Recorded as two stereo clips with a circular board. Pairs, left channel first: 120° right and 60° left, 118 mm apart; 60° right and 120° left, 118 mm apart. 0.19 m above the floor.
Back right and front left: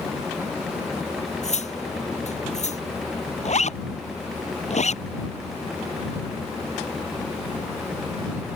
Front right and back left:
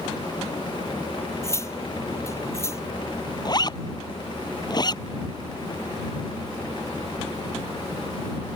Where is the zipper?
115° right.